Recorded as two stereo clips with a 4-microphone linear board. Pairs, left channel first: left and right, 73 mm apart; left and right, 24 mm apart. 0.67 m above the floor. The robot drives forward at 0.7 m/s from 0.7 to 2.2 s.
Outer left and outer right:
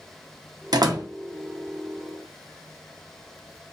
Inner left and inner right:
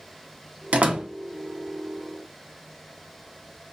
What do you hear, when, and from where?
0.7 s a door slam: 65° right (ahead or behind), 0.6 m; by 1.1 s 50° right (ahead or behind), 0.7 m